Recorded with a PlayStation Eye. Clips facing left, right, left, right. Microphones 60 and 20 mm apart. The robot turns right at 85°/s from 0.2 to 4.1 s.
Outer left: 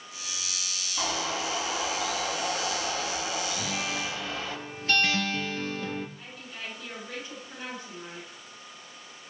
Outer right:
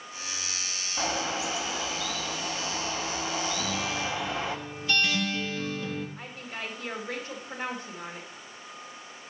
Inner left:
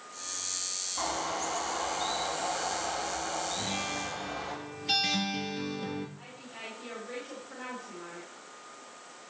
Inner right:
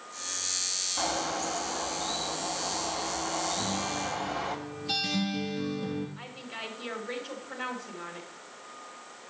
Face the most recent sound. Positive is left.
turn(degrees=-50)  # may be behind; listen again after turning